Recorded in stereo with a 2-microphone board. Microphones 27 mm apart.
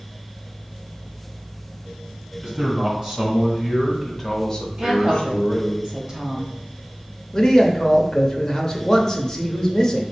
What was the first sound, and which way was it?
A man speaking, 30° right (ahead or behind).